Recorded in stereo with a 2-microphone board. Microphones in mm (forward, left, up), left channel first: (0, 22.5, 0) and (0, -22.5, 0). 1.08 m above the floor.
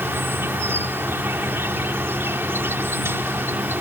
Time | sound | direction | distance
0.0 | an insect | 80° right | ?